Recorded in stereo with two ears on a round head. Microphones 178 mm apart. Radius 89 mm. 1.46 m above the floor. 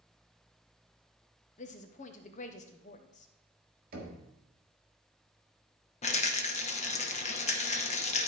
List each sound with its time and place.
1.6 s a woman speaking: 35° left (ahead or behind), 0.6 m
3.9 s knocking: 45° right (ahead or behind), 1.9 m
6.0 s a rattle: 35° left (ahead or behind), 0.9 m